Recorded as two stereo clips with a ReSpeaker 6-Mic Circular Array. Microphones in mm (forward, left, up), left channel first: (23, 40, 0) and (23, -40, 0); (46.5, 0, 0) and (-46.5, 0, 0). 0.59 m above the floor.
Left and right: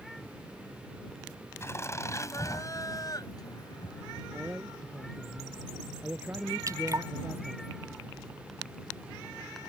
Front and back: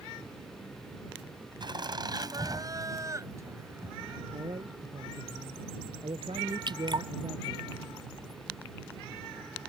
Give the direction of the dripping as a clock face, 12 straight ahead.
5 o'clock.